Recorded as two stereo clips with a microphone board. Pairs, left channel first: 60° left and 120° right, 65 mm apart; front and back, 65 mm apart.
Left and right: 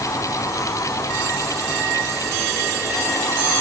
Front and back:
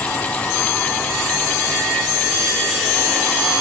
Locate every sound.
Only background noise.